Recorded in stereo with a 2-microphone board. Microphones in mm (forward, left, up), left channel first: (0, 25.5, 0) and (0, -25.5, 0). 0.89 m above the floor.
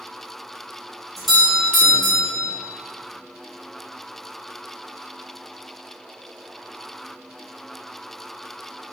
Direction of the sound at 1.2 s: Centre (ahead or behind).